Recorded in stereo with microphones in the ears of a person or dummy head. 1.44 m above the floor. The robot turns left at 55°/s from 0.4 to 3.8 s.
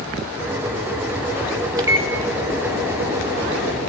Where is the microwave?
20° right (ahead or behind), 1.1 m; by 2.1 s 35° right (ahead or behind), 1.1 m.